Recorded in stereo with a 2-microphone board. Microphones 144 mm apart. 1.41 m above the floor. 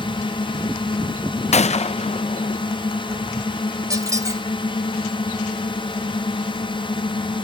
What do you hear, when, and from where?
0.0 s a drone: 35° left (ahead or behind)
1.5 s a gunshot: 50° left (ahead or behind)
3.9 s a squeak: 20° right (ahead or behind)